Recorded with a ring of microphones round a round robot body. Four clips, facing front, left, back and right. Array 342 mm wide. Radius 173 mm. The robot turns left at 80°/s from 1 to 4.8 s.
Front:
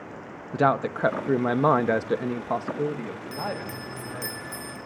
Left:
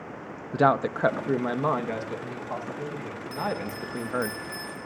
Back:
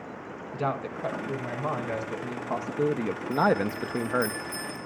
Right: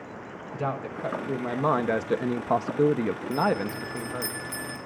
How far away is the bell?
About 5.5 m.